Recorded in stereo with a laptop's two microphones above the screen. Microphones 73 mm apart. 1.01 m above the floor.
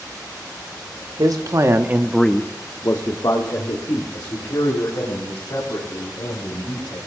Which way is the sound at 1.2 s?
60° right (ahead or behind).